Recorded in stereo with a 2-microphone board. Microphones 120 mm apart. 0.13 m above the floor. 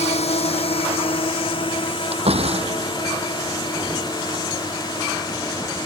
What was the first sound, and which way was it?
A drone, 70° left (ahead or behind).